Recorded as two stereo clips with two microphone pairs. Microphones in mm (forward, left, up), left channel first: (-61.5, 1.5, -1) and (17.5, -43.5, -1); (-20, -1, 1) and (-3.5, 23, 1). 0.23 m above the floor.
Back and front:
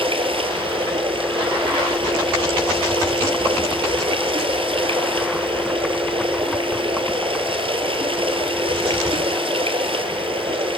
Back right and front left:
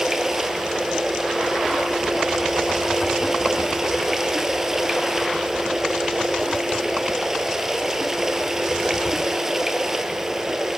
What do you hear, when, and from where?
0.0 s running water: 15° right, 1.6 m